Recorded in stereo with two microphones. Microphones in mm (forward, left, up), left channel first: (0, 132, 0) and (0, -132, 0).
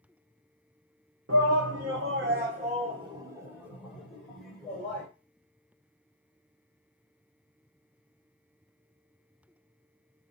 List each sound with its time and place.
1.3 s a shout: 75° right (ahead or behind), 0.7 m; by 5.1 s 5° left (ahead or behind), 1.9 m